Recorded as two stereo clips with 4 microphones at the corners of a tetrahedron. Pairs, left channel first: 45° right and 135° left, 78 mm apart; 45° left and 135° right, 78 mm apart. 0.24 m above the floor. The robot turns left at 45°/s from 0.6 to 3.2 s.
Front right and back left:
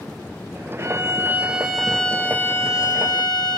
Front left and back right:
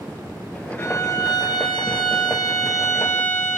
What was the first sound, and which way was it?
A violin, 90° left.